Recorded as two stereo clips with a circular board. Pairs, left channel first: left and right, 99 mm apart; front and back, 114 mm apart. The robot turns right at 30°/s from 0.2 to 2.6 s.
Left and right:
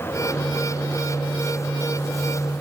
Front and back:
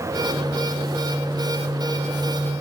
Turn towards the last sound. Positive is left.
No sound to turn to.